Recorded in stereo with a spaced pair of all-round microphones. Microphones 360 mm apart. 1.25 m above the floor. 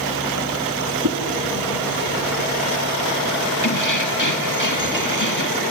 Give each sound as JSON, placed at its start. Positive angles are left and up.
{"t": 1.0, "sound": "a whoosh", "side_deg": -60, "distance_m": 3.0}
{"t": 3.6, "sound": "keys jangling", "side_deg": 55, "distance_m": 1.7}